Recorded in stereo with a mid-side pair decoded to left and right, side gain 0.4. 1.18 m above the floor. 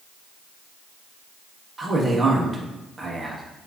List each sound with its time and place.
1.8 s a man speaking: 30° right, 1.0 m